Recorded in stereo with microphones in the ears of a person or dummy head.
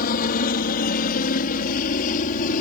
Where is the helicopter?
50° left (ahead or behind); by 2.6 s 45° left (ahead or behind).